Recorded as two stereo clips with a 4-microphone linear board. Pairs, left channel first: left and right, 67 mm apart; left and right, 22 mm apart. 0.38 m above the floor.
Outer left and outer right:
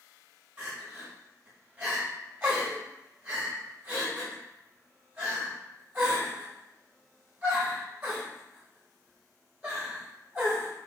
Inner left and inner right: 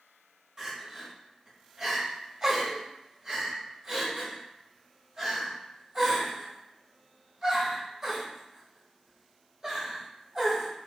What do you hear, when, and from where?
0.6 s crying: 30° right (ahead or behind), 1.3 m